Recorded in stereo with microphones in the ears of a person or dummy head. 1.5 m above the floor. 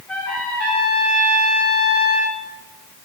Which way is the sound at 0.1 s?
5° left (ahead or behind).